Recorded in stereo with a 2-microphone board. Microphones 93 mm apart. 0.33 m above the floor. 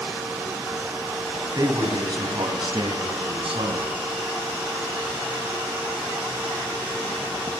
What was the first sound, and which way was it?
A man speaking, 40° right (ahead or behind).